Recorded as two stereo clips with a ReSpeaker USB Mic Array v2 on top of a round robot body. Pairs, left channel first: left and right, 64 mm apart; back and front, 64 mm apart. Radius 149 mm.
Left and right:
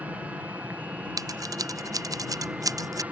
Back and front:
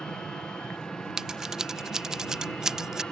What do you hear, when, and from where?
0.0 s an aircraft: 120° right
1.2 s scissors: 80° right